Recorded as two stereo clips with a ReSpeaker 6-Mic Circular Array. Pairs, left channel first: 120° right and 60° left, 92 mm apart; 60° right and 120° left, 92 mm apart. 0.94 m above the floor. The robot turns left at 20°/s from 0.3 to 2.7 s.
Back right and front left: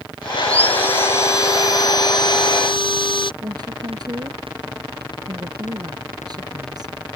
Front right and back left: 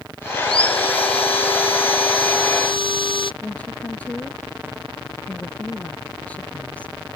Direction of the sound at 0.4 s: 45° right.